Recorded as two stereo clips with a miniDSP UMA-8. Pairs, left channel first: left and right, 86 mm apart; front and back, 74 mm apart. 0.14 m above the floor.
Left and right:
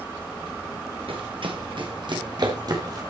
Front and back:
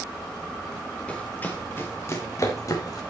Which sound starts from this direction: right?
Running footsteps, at 1.1 s.